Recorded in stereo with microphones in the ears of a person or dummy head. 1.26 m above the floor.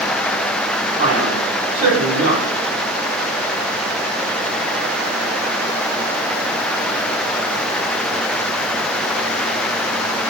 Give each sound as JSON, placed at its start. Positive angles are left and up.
{"t": 1.0, "sound": "a man speaking", "side_deg": -85, "distance_m": 3.5}